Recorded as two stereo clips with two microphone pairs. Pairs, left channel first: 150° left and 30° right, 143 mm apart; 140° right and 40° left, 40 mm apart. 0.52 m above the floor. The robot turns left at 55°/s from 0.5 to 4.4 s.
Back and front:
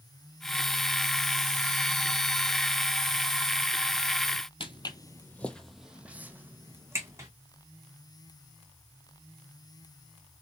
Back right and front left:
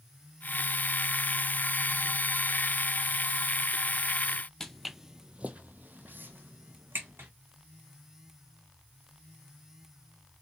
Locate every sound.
4.6 s footsteps: 150° left, 0.6 m; by 7.3 s 35° left, 1.5 m